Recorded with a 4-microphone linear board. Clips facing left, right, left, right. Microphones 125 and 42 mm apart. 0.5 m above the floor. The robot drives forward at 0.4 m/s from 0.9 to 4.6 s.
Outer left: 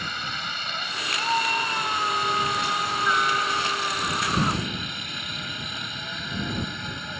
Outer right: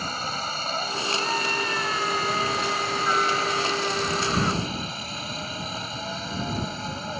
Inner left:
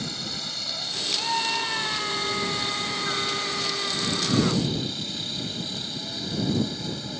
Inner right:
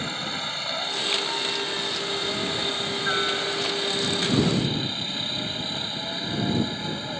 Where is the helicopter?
35° right (ahead or behind).